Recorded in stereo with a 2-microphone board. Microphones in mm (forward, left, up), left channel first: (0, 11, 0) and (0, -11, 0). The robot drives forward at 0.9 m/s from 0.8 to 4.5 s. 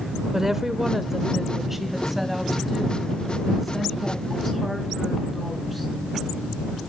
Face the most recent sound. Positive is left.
turn(degrees=-5)  # may be behind; listen again after turning